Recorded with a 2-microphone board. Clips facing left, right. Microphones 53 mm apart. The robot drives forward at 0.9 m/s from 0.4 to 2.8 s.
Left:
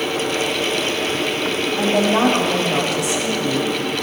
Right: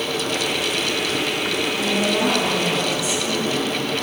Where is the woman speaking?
75° left (ahead or behind), 4 m.